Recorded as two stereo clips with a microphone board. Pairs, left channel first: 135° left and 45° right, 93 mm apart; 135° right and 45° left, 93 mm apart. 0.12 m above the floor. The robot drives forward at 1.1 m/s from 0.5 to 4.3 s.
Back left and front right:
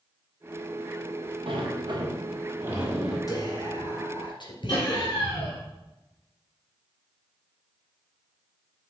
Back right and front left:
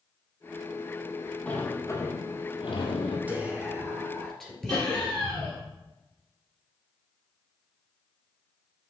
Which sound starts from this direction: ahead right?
A sliding door, at 1.5 s.